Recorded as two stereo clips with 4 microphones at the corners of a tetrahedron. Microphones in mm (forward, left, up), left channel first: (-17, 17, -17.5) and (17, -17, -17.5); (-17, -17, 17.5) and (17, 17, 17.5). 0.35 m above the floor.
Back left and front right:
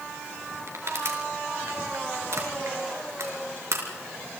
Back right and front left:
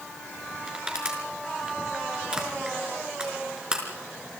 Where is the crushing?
30° right, 4.5 m.